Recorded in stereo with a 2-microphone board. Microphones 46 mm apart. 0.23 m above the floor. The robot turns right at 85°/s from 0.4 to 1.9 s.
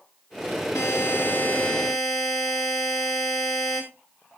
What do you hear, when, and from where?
0.8 s a buzzer: 75° left, 6 m; by 3.8 s 175° left, 6 m